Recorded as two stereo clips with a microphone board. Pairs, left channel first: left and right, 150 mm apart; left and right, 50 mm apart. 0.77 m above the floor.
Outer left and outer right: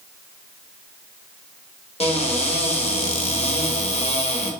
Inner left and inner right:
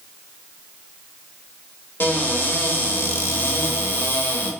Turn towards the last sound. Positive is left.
turn(degrees=45)  # may be behind; listen again after turning